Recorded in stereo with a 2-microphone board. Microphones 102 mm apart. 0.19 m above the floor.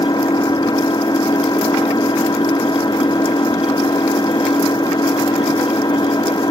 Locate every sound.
0.0 s an engine running: 45° left (ahead or behind)